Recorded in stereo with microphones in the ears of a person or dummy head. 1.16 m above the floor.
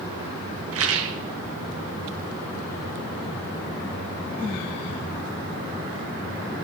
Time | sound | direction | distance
0.7 | a rattle | 65° right (ahead or behind) | 1.3 m